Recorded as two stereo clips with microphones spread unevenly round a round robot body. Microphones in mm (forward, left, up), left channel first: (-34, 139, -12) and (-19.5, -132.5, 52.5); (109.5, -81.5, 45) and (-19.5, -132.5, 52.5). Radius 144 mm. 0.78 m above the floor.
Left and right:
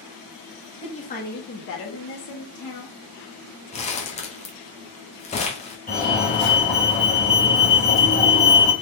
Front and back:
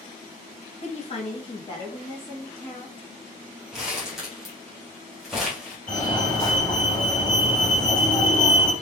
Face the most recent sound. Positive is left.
turn(degrees=95)